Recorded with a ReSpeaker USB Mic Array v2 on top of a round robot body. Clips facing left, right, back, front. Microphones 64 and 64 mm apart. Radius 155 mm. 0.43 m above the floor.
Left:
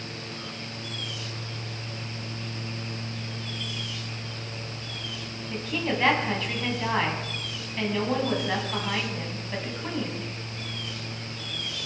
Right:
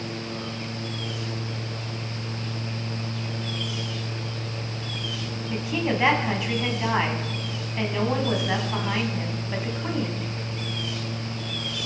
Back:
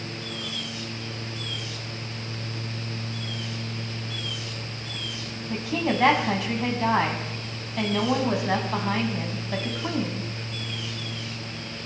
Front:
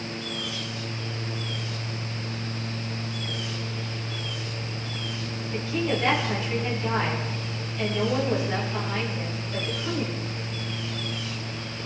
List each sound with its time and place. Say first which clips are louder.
5.5 s a woman speaking: right 3 dB, back 1 dB; 165° right, 4.5 m